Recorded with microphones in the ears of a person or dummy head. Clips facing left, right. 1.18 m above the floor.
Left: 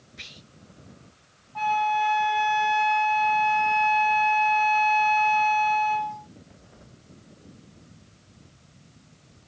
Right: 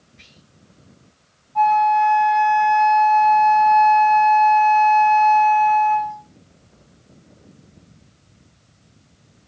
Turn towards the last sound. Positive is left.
turn(degrees=10)  # may be behind; listen again after turning